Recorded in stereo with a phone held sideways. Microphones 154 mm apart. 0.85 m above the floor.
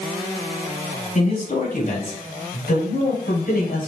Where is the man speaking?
55° left (ahead or behind), 4.5 m; by 3.9 s 75° left (ahead or behind), 4.5 m.